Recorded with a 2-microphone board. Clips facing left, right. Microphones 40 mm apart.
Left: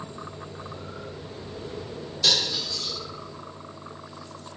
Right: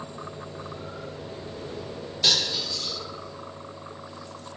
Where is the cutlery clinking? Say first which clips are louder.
Even; 25° right (ahead or behind), 1.1 m.